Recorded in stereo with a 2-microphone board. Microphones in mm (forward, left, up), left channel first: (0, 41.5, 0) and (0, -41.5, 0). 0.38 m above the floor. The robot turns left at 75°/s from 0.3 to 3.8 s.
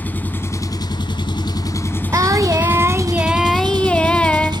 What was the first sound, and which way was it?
An engine running, 160° left.